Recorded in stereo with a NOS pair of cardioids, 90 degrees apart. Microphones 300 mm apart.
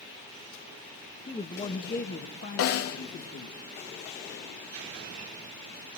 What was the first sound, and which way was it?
A man speaking, 20° left.